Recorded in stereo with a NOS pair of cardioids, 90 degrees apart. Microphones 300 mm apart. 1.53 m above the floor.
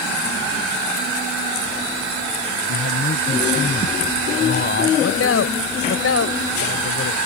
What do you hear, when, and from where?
2.7 s a man speaking: 35° left
5.0 s a man speaking: 50° left